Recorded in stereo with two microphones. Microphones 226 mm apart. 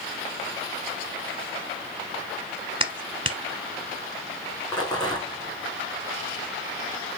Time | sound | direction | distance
2.8 | a clap | 25° right (ahead or behind) | 1.1 m
4.7 | a rattle | 20° left (ahead or behind) | 3.5 m